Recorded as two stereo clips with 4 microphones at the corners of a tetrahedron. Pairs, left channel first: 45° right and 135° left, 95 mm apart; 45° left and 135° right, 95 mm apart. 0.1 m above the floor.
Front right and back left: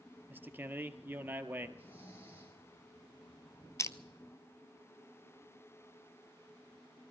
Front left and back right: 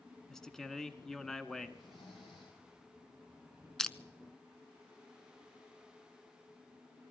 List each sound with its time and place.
0.3 s a man speaking: 120° left, 1.3 m
1.8 s snoring: 20° left, 5.5 m
3.8 s crushing: 35° right, 0.6 m